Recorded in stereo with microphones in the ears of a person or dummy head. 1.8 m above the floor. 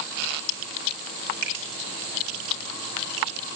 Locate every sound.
1.4 s a finger snap: 70° right (ahead or behind), 5 m